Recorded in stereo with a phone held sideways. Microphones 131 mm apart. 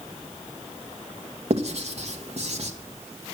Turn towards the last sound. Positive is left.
turn(degrees=-55)  # may be behind; listen again after turning